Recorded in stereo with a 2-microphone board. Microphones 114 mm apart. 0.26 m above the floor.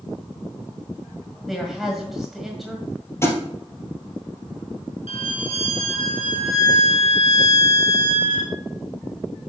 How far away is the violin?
About 1.1 m.